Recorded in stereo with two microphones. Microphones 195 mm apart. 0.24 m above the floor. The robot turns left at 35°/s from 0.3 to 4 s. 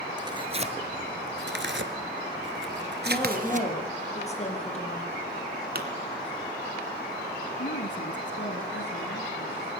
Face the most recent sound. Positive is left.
turn(degrees=65)  # may be behind; listen again after turning